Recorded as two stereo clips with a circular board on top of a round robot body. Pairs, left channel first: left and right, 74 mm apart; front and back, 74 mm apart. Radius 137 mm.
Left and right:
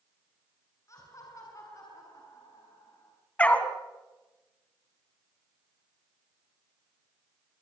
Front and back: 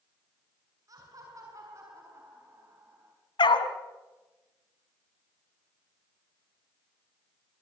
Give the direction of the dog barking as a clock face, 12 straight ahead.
11 o'clock.